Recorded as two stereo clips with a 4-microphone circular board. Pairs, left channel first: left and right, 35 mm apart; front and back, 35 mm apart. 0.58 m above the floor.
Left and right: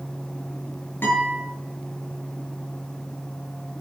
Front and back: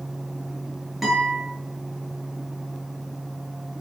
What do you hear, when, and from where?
1.0 s a guitar: 95° left, 9.5 m